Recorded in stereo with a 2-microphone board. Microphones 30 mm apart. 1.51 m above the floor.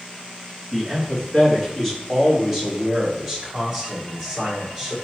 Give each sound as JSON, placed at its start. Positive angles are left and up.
{"t": 0.7, "sound": "a man speaking", "side_deg": 20, "distance_m": 2.5}